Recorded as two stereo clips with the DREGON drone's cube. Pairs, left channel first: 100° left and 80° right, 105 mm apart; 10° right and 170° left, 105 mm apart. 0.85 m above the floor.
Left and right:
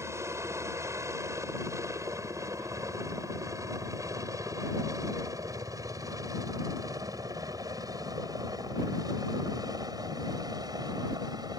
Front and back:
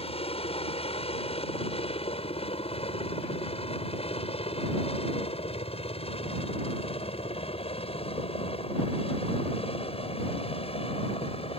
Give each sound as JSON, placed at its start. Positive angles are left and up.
{"t": 0.0, "sound": "a helicopter", "azimuth_deg": -20}